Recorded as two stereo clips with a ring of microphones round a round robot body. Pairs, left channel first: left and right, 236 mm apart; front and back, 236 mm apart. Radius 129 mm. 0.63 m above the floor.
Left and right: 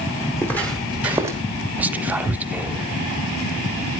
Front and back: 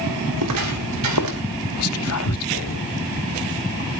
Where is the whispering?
5° right, 1.2 m.